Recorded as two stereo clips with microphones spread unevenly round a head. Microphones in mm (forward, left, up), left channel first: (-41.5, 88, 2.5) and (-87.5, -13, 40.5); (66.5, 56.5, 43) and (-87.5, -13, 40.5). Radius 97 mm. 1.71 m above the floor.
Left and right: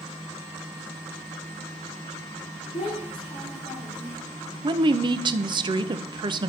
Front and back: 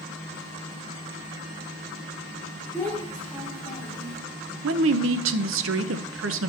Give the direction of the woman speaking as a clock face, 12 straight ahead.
5 o'clock.